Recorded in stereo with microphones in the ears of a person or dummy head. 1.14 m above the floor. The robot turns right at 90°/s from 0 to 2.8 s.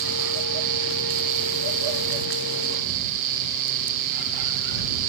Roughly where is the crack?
I don't hear a crack.